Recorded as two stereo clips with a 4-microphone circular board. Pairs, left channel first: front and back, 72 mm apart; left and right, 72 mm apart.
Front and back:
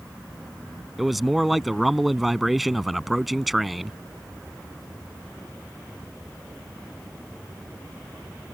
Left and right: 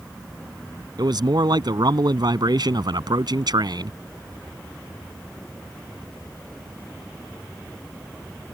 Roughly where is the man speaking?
Right.